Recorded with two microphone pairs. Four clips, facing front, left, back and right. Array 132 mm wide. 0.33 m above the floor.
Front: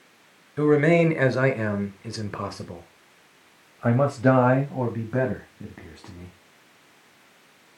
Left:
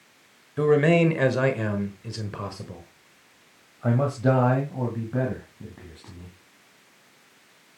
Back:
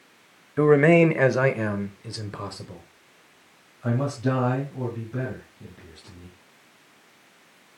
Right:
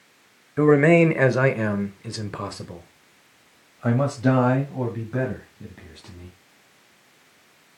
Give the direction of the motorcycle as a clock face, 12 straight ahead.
No motorcycle in this recording.